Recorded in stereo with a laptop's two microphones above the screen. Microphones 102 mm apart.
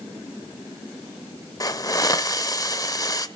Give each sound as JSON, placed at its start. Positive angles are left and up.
{"t": 1.6, "sound": "a hiss", "side_deg": 35, "distance_m": 0.7}